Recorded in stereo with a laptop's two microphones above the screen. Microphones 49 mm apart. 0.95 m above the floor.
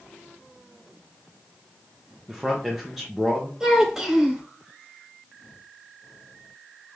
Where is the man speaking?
Centre (ahead or behind), 0.6 m.